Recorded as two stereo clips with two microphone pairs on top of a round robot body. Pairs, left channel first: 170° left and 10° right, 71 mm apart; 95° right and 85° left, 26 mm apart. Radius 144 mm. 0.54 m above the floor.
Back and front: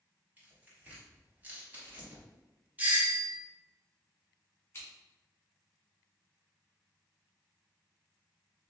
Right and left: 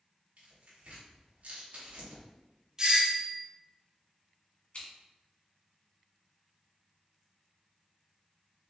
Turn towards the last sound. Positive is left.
turn(degrees=-125)